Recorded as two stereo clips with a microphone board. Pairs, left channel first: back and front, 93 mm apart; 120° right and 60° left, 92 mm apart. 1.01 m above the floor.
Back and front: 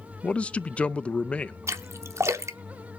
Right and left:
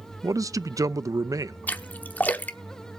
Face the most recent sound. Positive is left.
turn(degrees=-50)